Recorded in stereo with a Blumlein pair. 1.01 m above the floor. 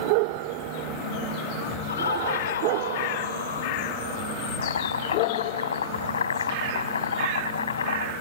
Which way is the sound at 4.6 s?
70° left.